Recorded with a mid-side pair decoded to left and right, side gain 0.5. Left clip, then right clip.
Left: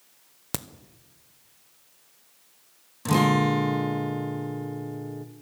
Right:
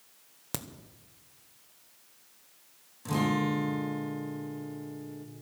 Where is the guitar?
55° left, 1.3 m.